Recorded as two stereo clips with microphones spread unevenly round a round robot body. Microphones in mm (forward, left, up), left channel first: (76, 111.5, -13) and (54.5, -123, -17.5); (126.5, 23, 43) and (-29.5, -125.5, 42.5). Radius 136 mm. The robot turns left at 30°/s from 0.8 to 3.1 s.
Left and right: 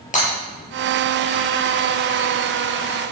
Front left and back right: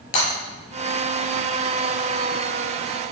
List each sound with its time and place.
0.1 s breaking glass: 25° left, 6.5 m